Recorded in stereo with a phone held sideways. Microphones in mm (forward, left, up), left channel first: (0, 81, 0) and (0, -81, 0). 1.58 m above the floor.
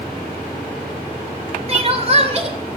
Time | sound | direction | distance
1.7 | crying | 40° right (ahead or behind) | 2 m